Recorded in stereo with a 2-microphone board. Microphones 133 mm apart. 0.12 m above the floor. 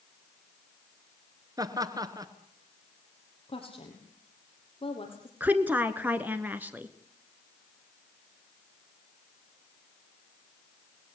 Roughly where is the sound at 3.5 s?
Left.